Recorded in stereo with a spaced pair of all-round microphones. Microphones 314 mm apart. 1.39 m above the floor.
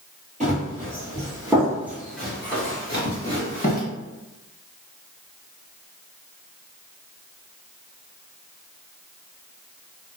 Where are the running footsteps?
25° right (ahead or behind), 1.9 m; by 3.8 s 25° left (ahead or behind), 1.5 m.